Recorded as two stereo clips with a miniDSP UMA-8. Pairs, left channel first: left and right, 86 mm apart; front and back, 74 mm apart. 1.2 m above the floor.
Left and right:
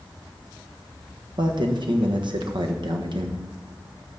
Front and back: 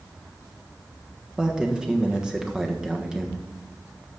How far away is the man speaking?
About 1.2 m.